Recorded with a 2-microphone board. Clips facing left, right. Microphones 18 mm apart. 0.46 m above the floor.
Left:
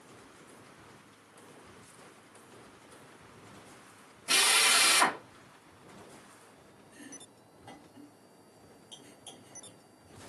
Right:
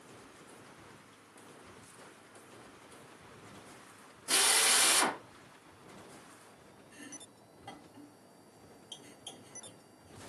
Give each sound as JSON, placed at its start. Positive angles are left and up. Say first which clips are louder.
{"t": 4.3, "sound": "a drill", "louder": "left 4 dB", "side_deg": 65, "distance_m": 1.2}
{"t": 6.9, "sound": "chopping", "louder": "even", "side_deg": -20, "distance_m": 2.0}